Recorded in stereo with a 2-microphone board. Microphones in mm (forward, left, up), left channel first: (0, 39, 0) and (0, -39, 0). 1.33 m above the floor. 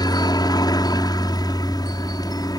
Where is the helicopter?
55° left (ahead or behind).